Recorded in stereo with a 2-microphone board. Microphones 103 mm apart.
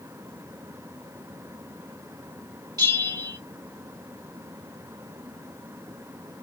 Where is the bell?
40° right (ahead or behind), 1.8 m.